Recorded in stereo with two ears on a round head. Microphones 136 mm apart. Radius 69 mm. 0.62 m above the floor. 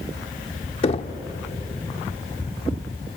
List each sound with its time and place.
0.8 s knocking: 40° left (ahead or behind), 0.9 m